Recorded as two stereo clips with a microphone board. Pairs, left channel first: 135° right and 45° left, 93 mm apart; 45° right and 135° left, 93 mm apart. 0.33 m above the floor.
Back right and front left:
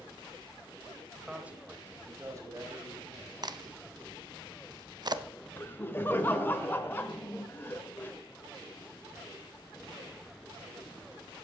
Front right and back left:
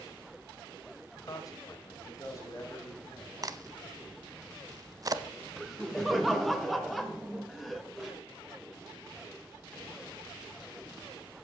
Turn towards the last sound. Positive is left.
turn(degrees=-130)